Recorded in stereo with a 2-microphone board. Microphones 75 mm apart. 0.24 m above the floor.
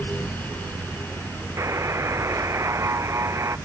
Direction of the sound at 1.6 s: 40° right (ahead or behind).